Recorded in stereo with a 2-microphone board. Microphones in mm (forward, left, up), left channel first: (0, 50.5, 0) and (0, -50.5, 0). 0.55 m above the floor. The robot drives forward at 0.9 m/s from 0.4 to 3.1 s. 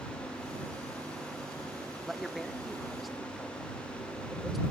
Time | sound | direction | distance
2.0 | a man speaking | centre (ahead or behind) | 0.6 m